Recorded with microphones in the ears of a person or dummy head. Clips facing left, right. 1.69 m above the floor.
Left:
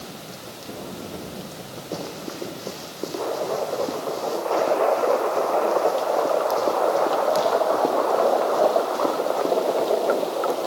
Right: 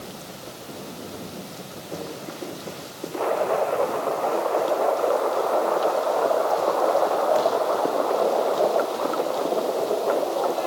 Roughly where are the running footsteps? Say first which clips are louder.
Left 2 dB; left.